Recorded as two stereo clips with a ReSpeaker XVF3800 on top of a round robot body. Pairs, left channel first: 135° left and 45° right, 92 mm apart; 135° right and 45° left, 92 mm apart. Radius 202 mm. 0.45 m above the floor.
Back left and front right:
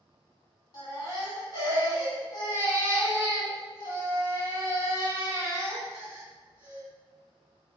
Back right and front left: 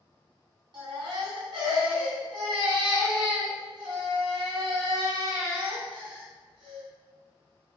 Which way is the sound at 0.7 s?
85° left.